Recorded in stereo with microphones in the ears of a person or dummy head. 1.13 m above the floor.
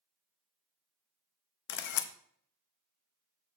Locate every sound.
1.7 s a camera shutter: 55° left (ahead or behind), 0.8 m